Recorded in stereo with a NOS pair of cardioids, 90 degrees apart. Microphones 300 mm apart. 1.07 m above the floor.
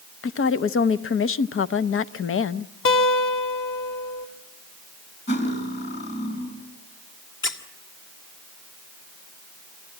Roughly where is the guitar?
Ahead left.